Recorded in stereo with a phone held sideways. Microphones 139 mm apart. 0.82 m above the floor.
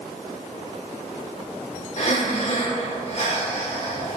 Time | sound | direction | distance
2.0 | breathing | 45° left (ahead or behind) | 1.9 m